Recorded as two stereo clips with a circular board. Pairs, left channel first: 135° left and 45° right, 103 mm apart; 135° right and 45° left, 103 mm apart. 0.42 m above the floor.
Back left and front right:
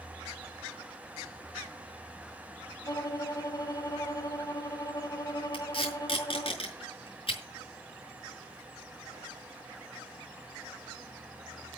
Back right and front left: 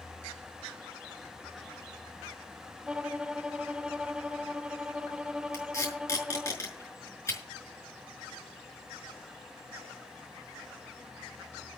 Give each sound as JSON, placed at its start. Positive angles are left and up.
{"t": 2.9, "sound": "a violin", "azimuth_deg": 120, "distance_m": 0.9}
{"t": 5.5, "sound": "tape being pulled", "azimuth_deg": 165, "distance_m": 5.5}